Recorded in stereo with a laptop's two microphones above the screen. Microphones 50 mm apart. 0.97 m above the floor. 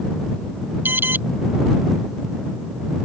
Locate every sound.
0.8 s an alarm: 40° right (ahead or behind)